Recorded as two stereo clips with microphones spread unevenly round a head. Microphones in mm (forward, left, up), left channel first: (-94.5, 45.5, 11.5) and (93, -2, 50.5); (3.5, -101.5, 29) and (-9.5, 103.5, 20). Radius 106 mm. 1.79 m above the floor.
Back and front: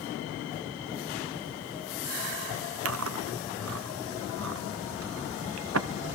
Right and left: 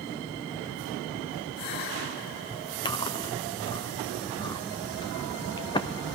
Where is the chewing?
15° right, 0.9 m.